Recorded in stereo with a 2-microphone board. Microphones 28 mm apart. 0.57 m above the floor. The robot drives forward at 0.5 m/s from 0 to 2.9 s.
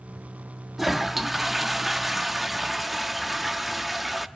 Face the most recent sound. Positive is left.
turn(degrees=-5)  # may be behind; listen again after turning